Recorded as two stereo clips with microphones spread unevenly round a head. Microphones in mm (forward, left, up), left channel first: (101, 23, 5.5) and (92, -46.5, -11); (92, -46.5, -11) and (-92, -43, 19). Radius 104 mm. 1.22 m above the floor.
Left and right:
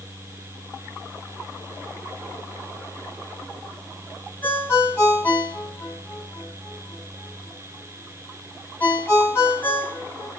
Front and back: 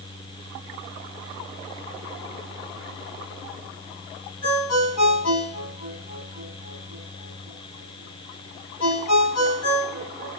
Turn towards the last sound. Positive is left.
turn(degrees=25)